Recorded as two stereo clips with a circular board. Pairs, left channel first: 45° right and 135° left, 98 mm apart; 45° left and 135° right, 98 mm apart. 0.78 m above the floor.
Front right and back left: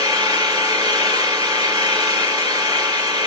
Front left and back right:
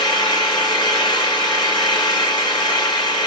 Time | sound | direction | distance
0.0 | an engine running | 85° left | 6.5 m